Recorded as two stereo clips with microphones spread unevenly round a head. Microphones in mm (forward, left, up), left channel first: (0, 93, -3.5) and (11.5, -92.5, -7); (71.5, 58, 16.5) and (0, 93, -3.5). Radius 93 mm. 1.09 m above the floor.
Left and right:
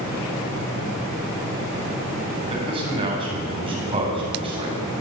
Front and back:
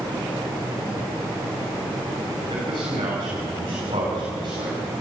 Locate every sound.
2.5 s a man speaking: 150° right, 9 m